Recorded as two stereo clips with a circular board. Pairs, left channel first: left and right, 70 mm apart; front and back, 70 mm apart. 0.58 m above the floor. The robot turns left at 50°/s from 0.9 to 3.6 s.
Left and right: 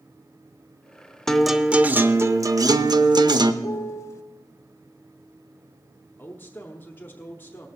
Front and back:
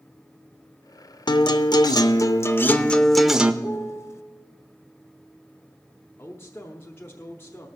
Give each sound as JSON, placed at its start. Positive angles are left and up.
{"t": 1.3, "sound": "a guitar", "azimuth_deg": 10, "distance_m": 0.6}
{"t": 3.6, "sound": "a piano", "azimuth_deg": 50, "distance_m": 0.7}
{"t": 6.2, "sound": "a man speaking", "azimuth_deg": 40, "distance_m": 1.0}